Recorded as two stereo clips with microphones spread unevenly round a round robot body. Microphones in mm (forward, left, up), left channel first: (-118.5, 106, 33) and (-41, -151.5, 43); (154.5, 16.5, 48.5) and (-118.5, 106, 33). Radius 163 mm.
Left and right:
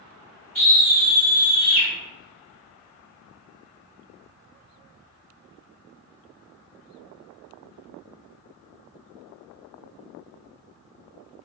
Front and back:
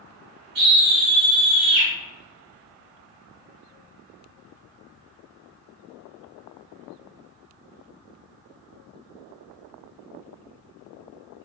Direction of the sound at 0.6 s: 155° right.